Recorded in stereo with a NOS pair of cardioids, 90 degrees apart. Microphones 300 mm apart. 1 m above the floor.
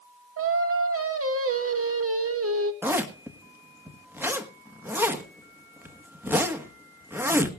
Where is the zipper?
5° right, 1.3 m.